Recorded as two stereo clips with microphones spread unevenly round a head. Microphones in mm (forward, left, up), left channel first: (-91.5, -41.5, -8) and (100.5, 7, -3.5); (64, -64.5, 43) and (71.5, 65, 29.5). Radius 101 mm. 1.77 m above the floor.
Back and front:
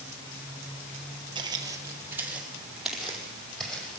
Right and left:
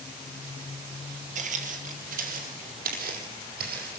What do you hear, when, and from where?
1.4 s footsteps: 75° left, 3 m; by 4.0 s 110° left, 5 m